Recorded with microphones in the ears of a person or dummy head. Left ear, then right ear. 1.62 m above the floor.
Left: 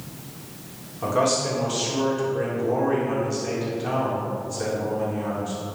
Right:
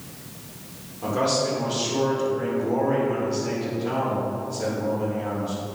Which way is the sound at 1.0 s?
40° left (ahead or behind).